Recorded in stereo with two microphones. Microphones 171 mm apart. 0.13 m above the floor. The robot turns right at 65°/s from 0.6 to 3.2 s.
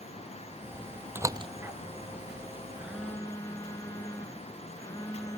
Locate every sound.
1.1 s a door slam: 10° right (ahead or behind); by 1.5 s 35° right (ahead or behind)
2.8 s a phone buzzing: 15° right (ahead or behind); by 5.4 s 15° left (ahead or behind)